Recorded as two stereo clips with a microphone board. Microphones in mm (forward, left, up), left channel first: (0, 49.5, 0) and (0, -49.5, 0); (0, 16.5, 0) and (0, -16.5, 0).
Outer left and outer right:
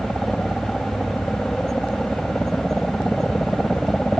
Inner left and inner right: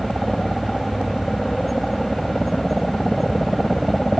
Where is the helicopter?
5° left (ahead or behind).